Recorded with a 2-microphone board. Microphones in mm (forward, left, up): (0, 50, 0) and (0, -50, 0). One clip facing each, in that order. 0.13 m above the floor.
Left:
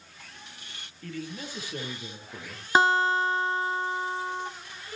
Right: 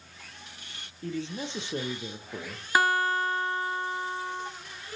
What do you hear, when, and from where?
1.0 s a man speaking: 25° right (ahead or behind), 3 m
2.8 s a guitar: 25° left (ahead or behind), 1.3 m